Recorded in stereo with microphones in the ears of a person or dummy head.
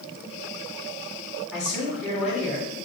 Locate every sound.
1.5 s a man speaking: centre (ahead or behind), 1.7 m